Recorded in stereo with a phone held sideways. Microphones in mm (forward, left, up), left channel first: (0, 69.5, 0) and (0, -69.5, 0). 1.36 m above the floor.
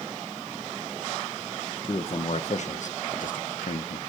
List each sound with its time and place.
1.8 s a man speaking: 40° left (ahead or behind), 1.3 m; by 4.0 s 80° left, 1.3 m